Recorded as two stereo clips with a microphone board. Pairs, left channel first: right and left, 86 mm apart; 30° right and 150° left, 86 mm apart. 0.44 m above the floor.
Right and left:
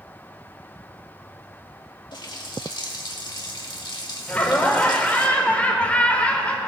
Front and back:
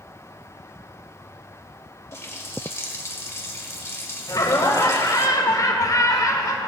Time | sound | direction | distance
2.1 | a running tap | 85° right | 1.3 m
4.3 | laughter | 20° right | 1.4 m